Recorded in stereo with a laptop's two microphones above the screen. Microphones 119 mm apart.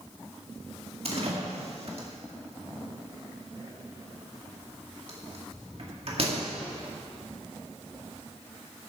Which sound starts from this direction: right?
A door slam, at 1.1 s.